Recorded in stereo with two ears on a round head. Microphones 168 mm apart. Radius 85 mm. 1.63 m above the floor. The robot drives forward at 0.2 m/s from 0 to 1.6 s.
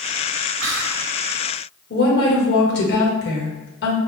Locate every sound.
0.6 s whispering: 70° right (ahead or behind), 0.9 m; by 1.0 s 75° right (ahead or behind), 0.9 m
1.9 s a woman speaking: 60° left (ahead or behind), 1.5 m